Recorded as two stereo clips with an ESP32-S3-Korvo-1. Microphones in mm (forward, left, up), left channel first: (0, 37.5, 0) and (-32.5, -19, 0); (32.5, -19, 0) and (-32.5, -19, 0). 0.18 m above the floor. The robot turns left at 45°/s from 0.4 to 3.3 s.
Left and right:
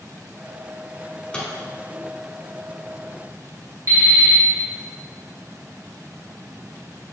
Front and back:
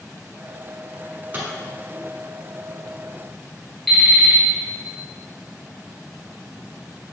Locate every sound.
1.0 s a microwave: 145° left, 1.1 m; by 1.5 s 120° left, 1.1 m
3.9 s an alarm clock: 90° right, 1.9 m